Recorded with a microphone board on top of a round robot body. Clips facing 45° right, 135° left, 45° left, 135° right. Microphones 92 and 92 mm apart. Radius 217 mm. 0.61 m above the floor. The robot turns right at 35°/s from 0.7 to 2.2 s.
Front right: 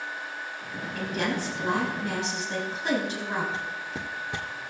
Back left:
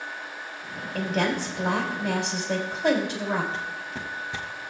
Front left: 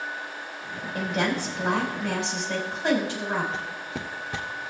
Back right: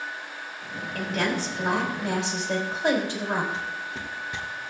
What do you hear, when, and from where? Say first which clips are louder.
0.9 s a woman speaking: back left 4 dB, front left 1 dB; 120° left, 4 m; by 3.4 s 165° left, 4 m
3.5 s footsteps: even, even; 35° left, 1.1 m; by 4.7 s 50° right, 0.7 m